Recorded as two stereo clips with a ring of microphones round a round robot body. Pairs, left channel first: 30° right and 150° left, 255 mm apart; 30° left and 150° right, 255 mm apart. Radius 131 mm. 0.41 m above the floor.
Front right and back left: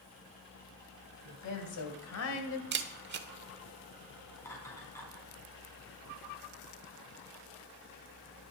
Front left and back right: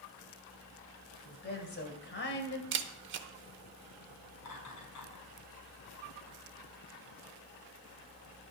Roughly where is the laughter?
Ahead left.